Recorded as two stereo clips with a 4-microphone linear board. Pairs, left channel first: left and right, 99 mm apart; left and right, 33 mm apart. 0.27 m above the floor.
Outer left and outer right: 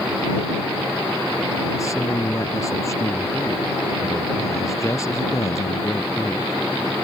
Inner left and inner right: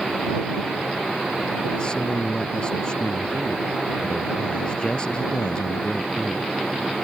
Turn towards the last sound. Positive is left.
turn(degrees=30)  # may be behind; listen again after turning